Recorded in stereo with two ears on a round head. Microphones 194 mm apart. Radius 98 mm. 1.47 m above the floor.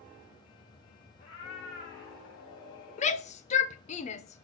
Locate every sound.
1.2 s a cat meowing: 60° left (ahead or behind), 3.5 m; by 3.3 s 50° left (ahead or behind), 4.5 m
3.0 s a shout: 30° left (ahead or behind), 0.5 m